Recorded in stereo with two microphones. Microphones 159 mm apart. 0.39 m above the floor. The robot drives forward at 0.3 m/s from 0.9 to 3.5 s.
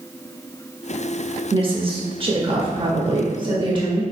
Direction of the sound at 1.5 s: 35° right (ahead or behind).